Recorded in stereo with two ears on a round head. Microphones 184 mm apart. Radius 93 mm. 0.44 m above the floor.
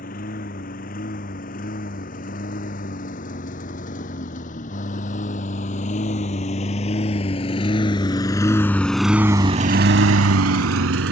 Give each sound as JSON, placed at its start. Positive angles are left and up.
{"t": 0.0, "sound": "a lawn mower", "side_deg": 40}